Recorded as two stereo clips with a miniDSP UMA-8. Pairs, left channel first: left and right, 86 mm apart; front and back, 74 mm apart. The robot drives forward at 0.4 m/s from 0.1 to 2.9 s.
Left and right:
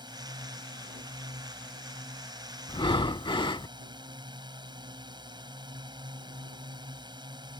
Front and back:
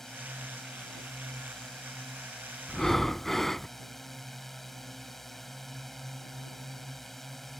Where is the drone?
85° right.